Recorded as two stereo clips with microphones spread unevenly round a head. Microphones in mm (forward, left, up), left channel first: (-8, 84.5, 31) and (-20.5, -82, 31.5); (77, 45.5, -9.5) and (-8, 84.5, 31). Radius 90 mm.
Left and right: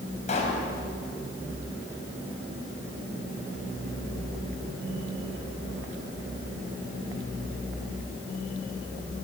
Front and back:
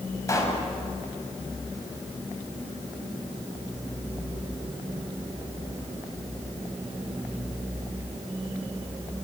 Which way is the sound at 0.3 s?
30° left.